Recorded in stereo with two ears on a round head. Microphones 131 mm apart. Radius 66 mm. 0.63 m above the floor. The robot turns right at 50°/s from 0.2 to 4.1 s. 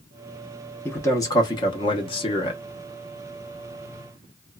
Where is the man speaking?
25° left, 0.8 m; by 2.6 s 110° left, 0.8 m.